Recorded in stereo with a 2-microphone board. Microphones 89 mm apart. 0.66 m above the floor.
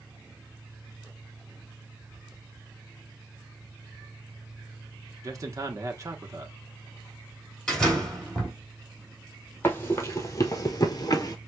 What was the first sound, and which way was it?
A man speaking, 35° right (ahead or behind).